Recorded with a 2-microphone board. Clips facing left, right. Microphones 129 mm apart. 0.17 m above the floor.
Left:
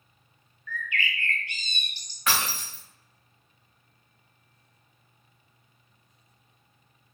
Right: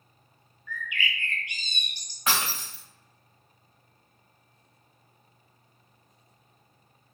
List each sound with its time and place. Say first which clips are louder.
0.7 s a bird: left 1 dB; 15° right (ahead or behind), 0.7 m
2.3 s breaking glass: even; 20° right (ahead or behind), 2.0 m